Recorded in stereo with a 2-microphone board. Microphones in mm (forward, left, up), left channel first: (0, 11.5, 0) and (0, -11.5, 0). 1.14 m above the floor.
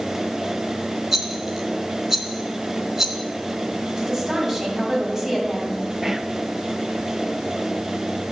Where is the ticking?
No ticking in this recording.